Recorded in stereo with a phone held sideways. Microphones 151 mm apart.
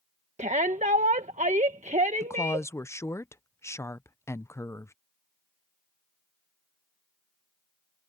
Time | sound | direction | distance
0.4 | a shout | 50° right (ahead or behind) | ?
2.2 | a woman speaking | 20° left (ahead or behind) | ?